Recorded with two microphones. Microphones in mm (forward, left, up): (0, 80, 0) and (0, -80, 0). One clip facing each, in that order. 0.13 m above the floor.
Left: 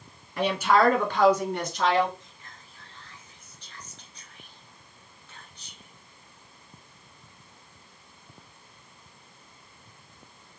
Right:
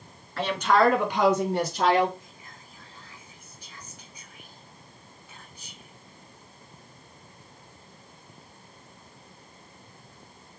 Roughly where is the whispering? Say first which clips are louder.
Right 2 dB; centre.